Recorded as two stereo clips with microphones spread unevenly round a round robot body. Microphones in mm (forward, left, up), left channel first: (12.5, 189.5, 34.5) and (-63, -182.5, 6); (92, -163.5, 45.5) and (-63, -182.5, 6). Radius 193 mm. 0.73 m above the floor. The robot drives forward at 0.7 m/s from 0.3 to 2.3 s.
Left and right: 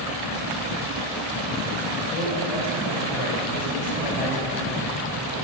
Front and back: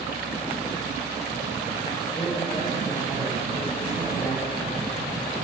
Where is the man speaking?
80° left, 4.5 m.